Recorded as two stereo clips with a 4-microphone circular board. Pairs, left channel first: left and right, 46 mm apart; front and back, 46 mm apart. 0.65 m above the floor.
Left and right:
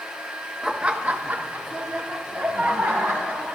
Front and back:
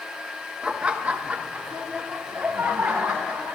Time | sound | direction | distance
0.6 | laughter | 155° right | 0.9 m